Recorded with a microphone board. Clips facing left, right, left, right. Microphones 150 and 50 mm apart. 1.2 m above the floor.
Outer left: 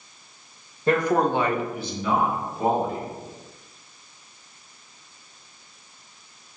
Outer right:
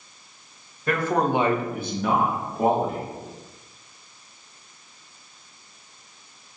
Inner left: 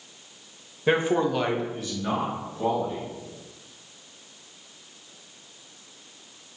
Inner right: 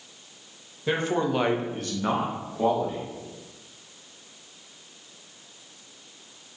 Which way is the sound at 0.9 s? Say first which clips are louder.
Outer left 2 dB, inner left 3 dB; 30° left (ahead or behind).